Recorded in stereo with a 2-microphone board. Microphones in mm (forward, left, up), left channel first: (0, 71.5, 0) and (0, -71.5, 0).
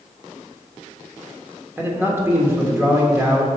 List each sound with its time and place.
1.8 s a man speaking: 15° right (ahead or behind), 1.4 m